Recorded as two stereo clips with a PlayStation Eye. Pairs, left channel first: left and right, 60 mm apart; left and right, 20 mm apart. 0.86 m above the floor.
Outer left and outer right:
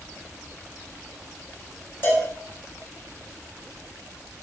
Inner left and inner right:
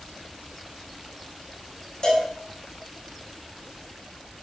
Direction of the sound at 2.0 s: 40° left (ahead or behind).